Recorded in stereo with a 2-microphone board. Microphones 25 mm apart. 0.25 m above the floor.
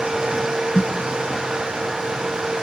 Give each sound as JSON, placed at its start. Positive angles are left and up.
{"t": 0.7, "sound": "a snare drum", "side_deg": 40, "distance_m": 1.1}